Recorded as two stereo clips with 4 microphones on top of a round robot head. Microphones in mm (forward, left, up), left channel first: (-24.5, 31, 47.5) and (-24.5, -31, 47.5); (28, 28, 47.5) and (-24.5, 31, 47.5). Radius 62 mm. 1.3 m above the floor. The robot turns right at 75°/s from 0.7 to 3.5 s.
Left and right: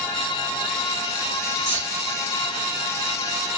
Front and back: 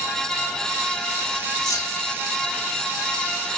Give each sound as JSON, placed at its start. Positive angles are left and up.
{"t": 1.7, "sound": "keys jangling", "azimuth_deg": -25, "distance_m": 0.8}